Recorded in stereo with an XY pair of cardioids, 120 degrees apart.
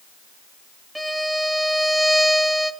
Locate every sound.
0.9 s a violin: 5° right, 0.7 m